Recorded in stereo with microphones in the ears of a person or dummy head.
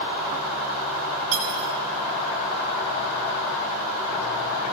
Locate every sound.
1.3 s cutlery clinking: 70° right (ahead or behind), 8.5 m